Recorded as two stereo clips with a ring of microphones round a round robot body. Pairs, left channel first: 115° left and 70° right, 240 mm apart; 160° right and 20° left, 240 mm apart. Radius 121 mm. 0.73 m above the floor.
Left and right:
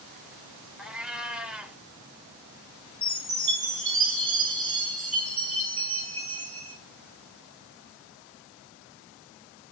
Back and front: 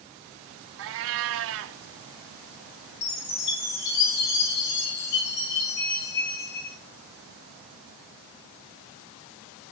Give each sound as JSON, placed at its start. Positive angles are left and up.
{"t": 0.8, "sound": "a cat meowing", "azimuth_deg": 20, "distance_m": 0.5}
{"t": 3.0, "sound": "a chime", "azimuth_deg": -165, "distance_m": 4.5}